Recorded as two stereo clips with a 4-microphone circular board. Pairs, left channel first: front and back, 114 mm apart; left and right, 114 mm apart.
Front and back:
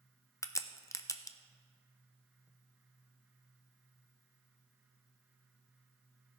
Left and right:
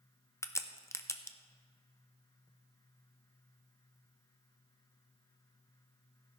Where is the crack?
40° left, 0.6 m.